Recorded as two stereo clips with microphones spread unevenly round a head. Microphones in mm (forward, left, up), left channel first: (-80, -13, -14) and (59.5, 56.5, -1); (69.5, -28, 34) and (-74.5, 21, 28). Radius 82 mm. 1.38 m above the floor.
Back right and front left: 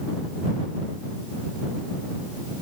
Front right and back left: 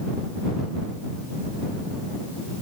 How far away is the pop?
No pop in this recording.